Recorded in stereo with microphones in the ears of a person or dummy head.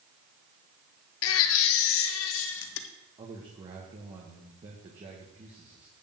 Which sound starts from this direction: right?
A man speaking, at 3.2 s.